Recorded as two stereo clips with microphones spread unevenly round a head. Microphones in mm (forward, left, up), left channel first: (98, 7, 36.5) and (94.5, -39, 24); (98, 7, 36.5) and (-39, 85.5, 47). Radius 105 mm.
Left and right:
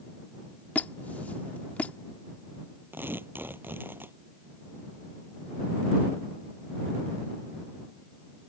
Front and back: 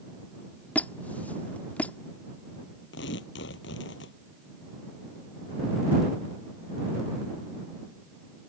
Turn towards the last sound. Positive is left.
turn(degrees=-50)